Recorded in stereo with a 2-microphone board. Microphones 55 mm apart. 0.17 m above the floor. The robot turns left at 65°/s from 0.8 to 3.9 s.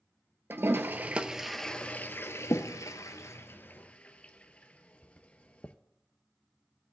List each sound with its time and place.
0.5 s a toilet flushing: 45° right (ahead or behind), 0.7 m; by 5.8 s 25° left (ahead or behind), 0.7 m